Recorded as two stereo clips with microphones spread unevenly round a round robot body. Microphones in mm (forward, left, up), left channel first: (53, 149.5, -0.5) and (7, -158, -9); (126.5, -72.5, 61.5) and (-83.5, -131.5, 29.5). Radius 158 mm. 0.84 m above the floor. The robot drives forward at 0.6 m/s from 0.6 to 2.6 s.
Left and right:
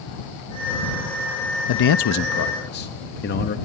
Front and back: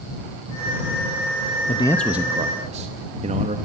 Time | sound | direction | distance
1.7 | a man speaking | 80° left | 0.5 m